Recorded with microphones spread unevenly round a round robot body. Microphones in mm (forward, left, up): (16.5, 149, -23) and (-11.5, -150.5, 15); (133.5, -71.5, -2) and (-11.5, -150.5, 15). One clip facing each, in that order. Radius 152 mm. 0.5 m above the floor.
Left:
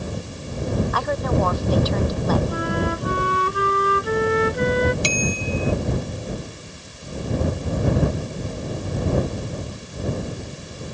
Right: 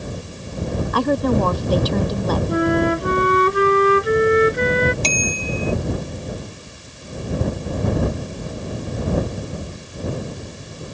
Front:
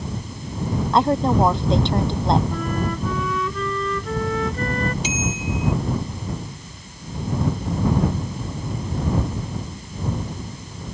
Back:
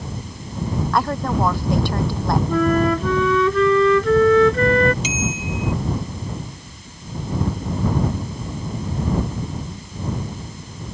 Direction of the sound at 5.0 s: 160° left.